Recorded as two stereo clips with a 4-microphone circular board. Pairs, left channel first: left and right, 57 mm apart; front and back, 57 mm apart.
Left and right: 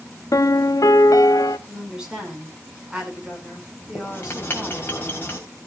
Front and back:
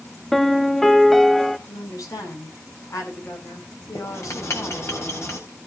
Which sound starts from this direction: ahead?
A woman speaking, at 1.7 s.